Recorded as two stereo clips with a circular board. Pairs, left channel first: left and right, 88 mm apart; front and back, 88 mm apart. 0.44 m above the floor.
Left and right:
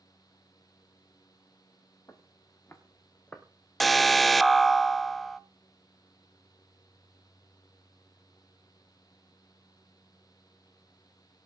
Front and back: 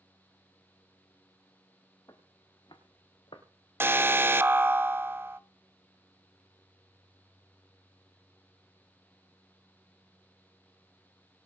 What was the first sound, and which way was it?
Footsteps, 40° left.